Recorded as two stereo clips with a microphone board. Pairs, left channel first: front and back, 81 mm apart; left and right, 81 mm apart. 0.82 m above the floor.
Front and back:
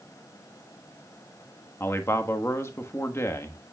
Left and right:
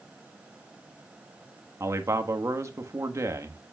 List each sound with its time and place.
1.8 s a man speaking: 50° right, 1.3 m